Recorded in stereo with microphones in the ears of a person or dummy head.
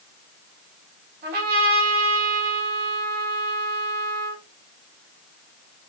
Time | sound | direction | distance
1.2 | a trumpet | 55° right (ahead or behind) | 1.5 m